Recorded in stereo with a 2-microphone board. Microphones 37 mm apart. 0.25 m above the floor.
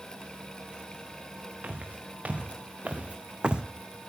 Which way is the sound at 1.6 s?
45° right (ahead or behind).